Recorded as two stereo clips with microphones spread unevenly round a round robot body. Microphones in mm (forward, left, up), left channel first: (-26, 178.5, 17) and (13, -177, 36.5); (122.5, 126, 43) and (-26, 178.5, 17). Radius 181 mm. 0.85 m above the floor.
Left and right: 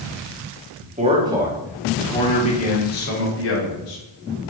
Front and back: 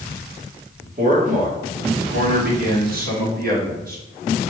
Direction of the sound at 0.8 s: 150° right.